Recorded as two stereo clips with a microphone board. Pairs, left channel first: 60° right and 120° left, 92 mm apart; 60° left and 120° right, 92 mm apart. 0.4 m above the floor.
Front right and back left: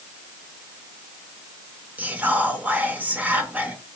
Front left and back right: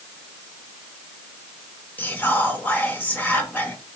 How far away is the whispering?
About 0.8 m.